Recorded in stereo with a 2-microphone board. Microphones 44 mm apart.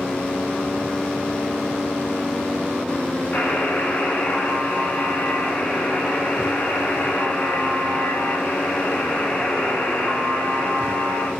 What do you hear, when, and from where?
3.3 s a buzzer: 35° left (ahead or behind), 0.9 m